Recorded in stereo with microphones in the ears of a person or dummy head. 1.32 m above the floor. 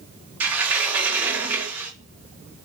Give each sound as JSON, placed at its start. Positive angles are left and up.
{"t": 0.4, "sound": "a sliding door", "side_deg": -10, "distance_m": 0.9}